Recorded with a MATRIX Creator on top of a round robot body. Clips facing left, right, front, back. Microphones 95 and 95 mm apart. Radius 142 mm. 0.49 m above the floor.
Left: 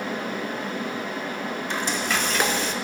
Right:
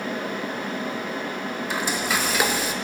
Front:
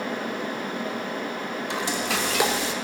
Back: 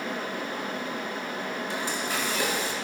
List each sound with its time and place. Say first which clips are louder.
1.7 s frying: right 1 dB, front 6 dB; 5° right, 0.7 m